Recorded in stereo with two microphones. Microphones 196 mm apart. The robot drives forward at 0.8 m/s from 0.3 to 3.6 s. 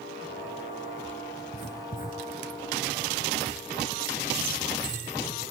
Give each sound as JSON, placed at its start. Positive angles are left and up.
{"t": 1.4, "sound": "writing", "side_deg": 50, "distance_m": 4.0}